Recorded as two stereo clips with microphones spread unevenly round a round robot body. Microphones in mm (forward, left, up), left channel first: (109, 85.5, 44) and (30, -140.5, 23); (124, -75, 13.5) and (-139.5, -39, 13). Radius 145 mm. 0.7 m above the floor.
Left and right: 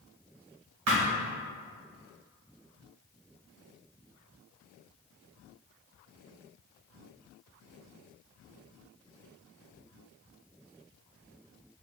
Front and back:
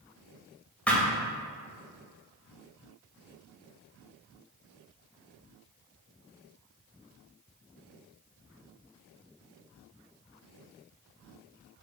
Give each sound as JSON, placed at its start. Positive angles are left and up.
{"t": 0.9, "sound": "a thud", "azimuth_deg": -95, "distance_m": 1.2}